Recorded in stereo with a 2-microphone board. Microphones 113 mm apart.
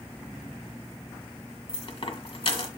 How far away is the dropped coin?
About 1.5 m.